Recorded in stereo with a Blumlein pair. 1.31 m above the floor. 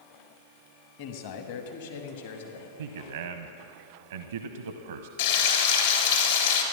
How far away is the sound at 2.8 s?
About 0.7 m.